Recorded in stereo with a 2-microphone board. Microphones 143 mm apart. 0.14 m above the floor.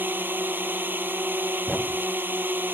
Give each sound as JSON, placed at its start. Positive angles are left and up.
{"t": 0.0, "sound": "a drone", "side_deg": -15}
{"t": 1.7, "sound": "a thud", "side_deg": 5}